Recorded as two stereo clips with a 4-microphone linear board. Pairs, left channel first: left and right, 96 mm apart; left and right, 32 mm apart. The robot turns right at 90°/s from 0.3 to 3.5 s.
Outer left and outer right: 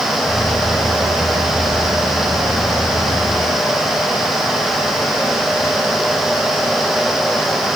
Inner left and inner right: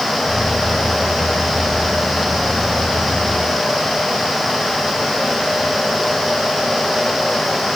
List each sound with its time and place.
Only background noise.